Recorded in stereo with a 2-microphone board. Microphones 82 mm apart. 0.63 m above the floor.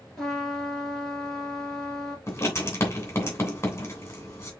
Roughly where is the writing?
Left.